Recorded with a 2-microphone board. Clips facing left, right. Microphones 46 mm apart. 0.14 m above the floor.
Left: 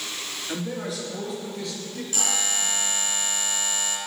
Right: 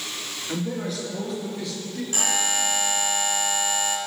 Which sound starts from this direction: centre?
A man speaking, at 0.5 s.